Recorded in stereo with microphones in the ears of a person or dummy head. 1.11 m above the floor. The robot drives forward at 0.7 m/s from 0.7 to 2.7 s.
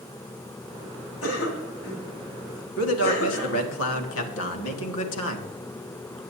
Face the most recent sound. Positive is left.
turn(degrees=85)